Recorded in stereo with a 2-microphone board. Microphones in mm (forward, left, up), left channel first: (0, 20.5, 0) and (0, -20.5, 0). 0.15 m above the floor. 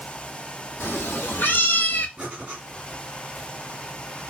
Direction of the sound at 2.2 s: 25° right (ahead or behind).